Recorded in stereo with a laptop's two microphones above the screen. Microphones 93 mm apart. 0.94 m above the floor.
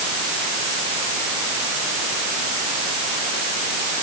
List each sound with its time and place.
Only background noise.